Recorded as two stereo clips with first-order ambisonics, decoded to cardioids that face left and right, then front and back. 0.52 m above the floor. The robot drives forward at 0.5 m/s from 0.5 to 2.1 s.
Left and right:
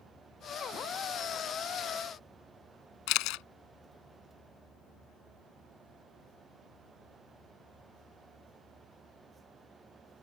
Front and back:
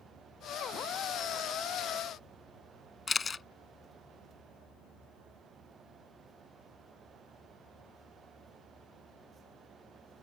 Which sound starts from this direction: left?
A camera shutter, at 3.1 s.